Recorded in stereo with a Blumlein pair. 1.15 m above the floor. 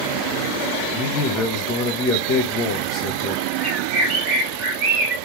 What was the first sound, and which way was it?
A man speaking, 25° left.